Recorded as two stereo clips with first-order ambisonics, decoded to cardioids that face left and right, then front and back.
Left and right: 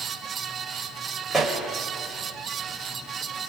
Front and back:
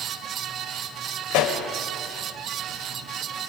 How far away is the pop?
About 3 m.